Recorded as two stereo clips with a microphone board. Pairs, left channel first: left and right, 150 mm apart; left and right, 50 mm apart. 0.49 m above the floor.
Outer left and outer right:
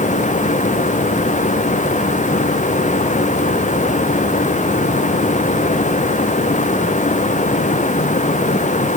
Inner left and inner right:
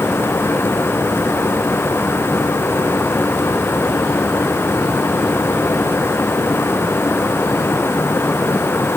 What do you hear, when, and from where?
Only background noise.